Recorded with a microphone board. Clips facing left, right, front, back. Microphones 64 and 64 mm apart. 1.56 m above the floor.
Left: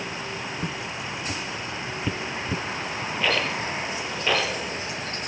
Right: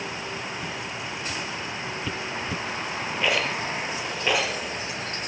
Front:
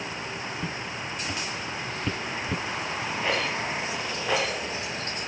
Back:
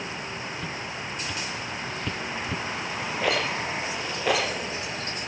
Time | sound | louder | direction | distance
0.6 | footsteps | left 1 dB, even | 60° left | 2.5 m
3.2 | a rattle | even, back 2 dB | 170° right | 6.5 m